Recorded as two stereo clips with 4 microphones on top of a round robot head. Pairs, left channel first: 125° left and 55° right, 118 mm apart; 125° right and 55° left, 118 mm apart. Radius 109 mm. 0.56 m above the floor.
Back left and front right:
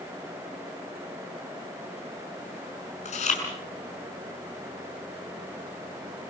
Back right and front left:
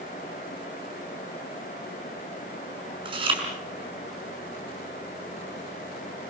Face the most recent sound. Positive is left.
turn(degrees=100)